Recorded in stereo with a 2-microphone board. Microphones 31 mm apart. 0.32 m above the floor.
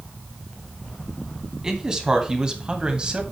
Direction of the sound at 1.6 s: 20° right (ahead or behind).